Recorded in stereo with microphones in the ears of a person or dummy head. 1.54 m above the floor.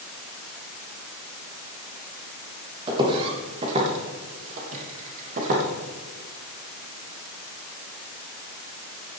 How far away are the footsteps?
About 4 m.